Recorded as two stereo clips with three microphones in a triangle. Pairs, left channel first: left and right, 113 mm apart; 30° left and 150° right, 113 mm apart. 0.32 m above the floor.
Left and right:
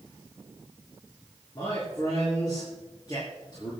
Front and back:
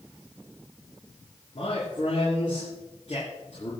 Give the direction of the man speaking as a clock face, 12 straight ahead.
11 o'clock.